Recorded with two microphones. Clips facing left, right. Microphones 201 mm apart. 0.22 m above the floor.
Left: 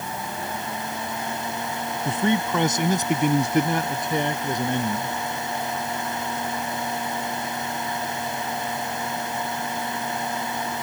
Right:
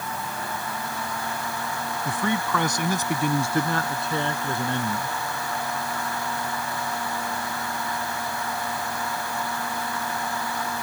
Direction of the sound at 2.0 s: 25° left (ahead or behind).